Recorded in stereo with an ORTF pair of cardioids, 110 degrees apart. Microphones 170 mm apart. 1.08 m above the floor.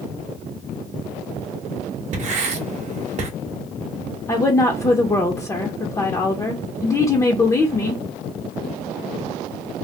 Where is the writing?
45° right, 0.9 m.